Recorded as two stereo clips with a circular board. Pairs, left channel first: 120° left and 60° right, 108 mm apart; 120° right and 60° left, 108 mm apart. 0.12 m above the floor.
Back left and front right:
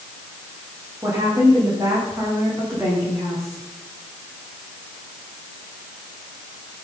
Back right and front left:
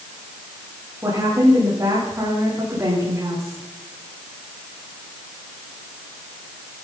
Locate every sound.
1.0 s a woman speaking: straight ahead, 8 m